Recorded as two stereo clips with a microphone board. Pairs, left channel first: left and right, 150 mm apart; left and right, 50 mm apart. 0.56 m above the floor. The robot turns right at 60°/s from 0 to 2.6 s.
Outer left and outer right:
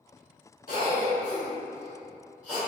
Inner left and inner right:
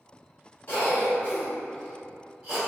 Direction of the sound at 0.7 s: 60° left (ahead or behind).